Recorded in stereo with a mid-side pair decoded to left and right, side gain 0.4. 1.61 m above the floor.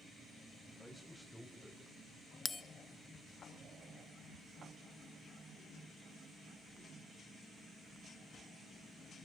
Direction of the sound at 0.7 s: 5° left.